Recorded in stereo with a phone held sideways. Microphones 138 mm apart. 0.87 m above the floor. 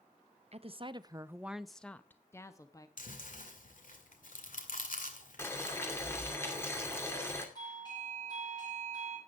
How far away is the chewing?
About 2 m.